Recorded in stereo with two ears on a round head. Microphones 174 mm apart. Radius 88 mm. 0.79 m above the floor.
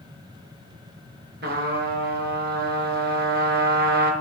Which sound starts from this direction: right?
A trumpet, at 1.4 s.